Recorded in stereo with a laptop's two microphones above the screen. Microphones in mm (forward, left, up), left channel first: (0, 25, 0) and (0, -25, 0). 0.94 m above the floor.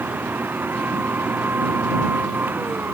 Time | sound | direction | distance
0.0 | a machine running | 40° right (ahead or behind) | ?